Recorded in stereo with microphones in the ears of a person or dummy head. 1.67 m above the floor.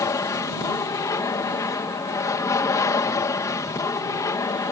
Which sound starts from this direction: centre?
An aircraft, at 0.0 s.